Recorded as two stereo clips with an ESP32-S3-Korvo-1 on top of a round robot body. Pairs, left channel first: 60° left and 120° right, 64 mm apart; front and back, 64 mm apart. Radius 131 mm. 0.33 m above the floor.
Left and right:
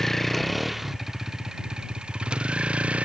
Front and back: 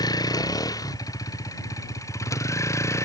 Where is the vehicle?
25° right; by 3.0 s 45° right.